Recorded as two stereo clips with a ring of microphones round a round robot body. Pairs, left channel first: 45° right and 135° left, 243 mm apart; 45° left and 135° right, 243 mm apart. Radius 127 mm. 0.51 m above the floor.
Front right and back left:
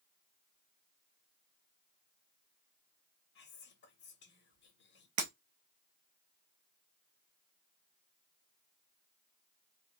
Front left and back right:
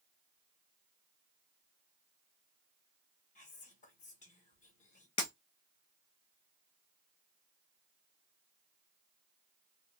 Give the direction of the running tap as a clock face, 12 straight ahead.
I don't hear a running tap.